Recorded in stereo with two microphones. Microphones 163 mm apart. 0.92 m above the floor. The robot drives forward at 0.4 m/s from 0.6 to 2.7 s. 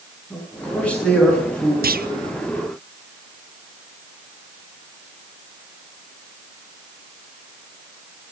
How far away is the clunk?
About 0.8 m.